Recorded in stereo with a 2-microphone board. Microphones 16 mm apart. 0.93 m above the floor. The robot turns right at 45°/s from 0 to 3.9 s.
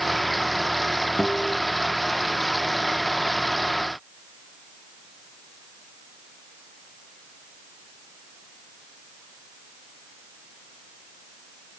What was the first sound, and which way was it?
A guitar, 85° left.